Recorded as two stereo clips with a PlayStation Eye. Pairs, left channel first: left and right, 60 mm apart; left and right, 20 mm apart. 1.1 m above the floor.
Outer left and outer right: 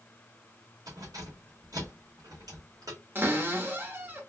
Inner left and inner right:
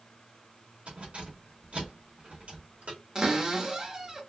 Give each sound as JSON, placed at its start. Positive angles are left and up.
{"t": 0.9, "sound": "keys jangling", "side_deg": -80, "distance_m": 1.7}
{"t": 3.1, "sound": "a cupboard door", "side_deg": -35, "distance_m": 1.0}